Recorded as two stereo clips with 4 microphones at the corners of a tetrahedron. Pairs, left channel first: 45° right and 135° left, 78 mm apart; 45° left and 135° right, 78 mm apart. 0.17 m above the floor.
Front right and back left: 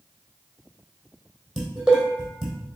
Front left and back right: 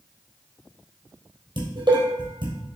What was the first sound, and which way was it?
Dishes clattering, 140° right.